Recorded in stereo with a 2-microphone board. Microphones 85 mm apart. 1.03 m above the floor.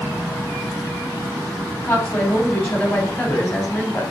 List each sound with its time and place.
1.8 s a woman speaking: 30° left (ahead or behind), 3 m